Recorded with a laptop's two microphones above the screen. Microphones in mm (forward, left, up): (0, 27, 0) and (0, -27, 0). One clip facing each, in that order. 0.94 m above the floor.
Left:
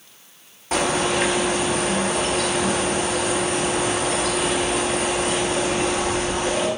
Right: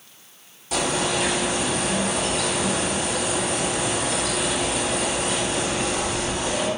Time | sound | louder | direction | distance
0.7 | a bird | left 3 dB | 45° left (ahead or behind) | 0.6 m